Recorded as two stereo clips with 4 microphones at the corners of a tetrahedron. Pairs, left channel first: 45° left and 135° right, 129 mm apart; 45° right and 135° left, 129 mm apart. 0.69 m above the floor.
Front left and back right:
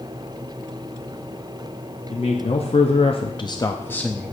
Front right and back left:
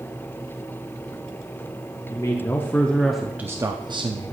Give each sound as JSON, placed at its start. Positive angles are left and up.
{"t": 2.1, "sound": "a man speaking", "azimuth_deg": 15, "distance_m": 1.0}